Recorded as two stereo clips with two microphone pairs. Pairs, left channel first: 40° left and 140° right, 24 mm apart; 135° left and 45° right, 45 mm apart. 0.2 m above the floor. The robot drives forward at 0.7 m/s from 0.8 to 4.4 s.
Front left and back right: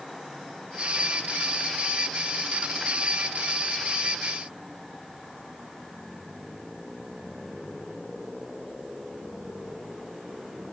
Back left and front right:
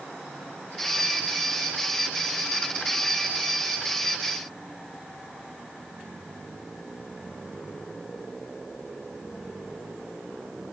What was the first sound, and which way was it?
Only background noise.